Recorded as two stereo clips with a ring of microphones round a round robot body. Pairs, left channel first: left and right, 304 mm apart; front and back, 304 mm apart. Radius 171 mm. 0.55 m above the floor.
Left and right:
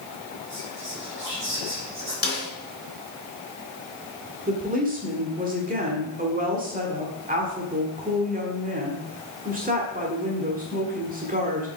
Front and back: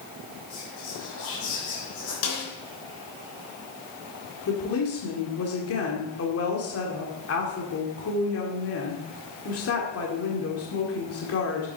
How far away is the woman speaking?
About 1.8 m.